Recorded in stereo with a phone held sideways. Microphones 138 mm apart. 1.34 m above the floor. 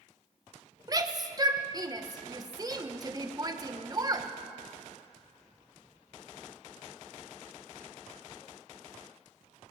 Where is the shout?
30° right (ahead or behind), 1.4 m.